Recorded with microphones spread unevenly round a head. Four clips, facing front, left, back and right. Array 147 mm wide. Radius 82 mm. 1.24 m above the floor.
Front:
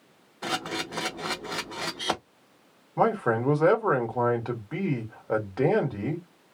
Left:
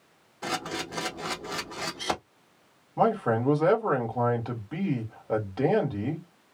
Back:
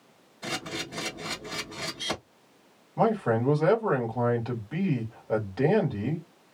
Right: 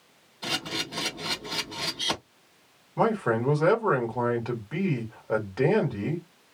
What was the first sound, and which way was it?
A camera shutter, 35° left.